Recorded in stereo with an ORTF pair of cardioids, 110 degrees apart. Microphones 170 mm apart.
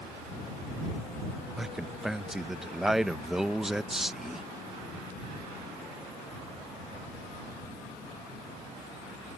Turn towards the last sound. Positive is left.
turn(degrees=-5)